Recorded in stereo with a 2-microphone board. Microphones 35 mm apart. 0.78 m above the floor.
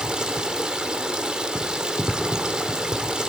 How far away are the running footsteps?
I don't hear running footsteps.